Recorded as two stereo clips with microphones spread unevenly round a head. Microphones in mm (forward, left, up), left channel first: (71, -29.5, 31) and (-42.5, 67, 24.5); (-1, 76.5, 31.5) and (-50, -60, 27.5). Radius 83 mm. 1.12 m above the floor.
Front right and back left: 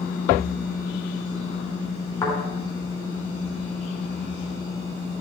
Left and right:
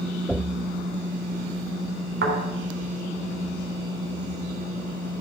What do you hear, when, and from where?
2.2 s a thud: 110° right, 3.5 m